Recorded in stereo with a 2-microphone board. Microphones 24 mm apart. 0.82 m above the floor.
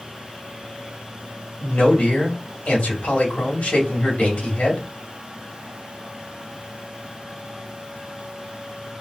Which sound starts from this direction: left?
A man speaking, at 1.6 s.